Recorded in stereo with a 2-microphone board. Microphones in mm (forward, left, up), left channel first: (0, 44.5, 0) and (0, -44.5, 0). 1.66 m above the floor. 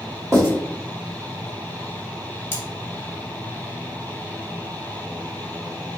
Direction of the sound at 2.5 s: 20° left (ahead or behind).